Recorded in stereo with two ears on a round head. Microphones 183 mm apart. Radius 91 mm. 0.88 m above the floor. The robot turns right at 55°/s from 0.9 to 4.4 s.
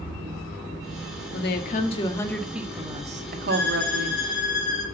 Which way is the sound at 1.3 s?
115° left.